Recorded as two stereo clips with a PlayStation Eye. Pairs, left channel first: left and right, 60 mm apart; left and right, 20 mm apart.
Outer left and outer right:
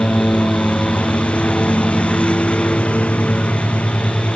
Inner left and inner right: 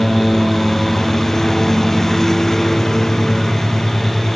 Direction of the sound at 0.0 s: 20° left (ahead or behind).